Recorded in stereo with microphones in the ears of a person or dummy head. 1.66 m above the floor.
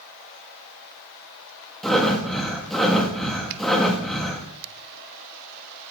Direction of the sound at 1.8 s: Centre (ahead or behind).